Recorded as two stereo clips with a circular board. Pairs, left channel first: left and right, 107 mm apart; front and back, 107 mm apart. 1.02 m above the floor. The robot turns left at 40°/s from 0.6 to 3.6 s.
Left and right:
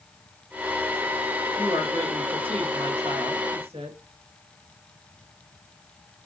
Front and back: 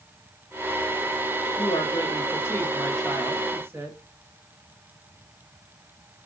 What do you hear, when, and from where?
1.6 s a woman speaking: 30° right, 1.3 m; by 4.0 s 110° right, 1.3 m